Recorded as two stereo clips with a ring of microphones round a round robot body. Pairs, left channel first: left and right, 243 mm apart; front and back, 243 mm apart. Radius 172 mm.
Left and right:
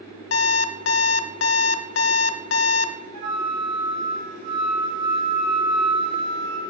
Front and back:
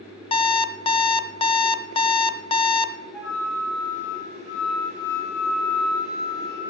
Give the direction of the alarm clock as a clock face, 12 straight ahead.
10 o'clock.